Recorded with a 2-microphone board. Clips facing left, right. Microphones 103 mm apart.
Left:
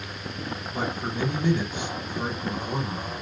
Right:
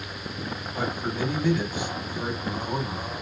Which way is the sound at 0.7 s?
25° left (ahead or behind).